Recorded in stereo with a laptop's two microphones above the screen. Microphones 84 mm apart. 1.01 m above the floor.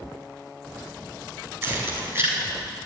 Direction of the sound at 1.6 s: 30° right (ahead or behind).